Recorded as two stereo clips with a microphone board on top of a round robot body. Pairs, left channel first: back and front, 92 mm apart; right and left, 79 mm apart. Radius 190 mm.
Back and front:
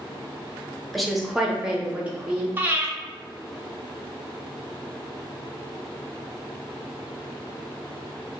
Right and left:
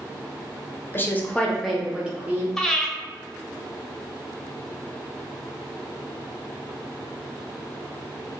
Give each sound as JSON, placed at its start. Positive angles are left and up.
{"t": 0.9, "sound": "a woman speaking", "azimuth_deg": -90, "distance_m": 1.0}
{"t": 2.6, "sound": "breathing", "azimuth_deg": -15, "distance_m": 0.9}